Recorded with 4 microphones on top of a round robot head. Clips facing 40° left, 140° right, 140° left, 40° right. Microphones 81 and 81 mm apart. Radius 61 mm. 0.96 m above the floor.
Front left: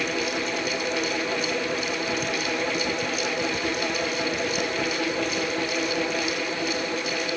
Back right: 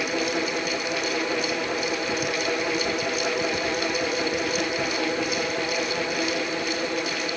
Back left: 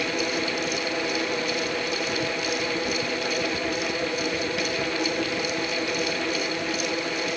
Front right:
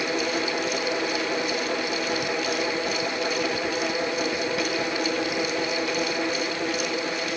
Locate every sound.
Only background noise.